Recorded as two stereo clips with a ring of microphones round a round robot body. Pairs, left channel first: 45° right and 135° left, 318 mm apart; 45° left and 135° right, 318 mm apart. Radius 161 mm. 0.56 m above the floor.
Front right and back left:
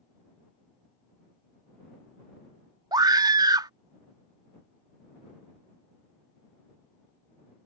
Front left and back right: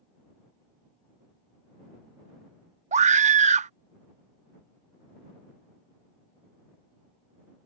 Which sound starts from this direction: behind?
A scream, at 2.9 s.